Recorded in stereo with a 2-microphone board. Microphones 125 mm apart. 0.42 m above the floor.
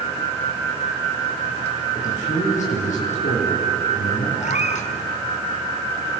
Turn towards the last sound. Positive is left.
turn(degrees=80)